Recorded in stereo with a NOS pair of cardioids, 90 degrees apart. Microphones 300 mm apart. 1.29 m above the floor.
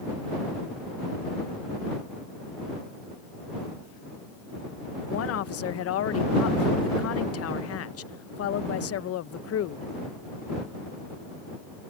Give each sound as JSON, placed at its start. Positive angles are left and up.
{"t": 5.1, "sound": "a woman speaking", "azimuth_deg": 55}